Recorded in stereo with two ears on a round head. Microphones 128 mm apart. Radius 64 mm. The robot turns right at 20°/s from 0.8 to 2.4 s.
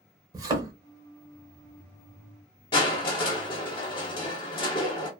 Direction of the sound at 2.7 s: 35° left (ahead or behind).